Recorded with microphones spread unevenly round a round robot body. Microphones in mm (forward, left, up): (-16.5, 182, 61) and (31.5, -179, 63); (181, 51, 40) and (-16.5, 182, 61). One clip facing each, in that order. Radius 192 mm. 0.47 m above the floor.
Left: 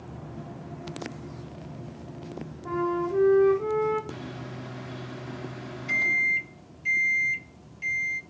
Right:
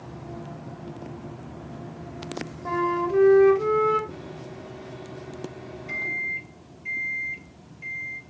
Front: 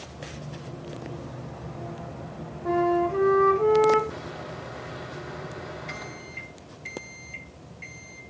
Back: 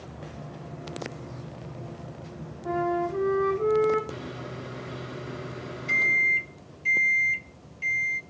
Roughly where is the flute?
Right.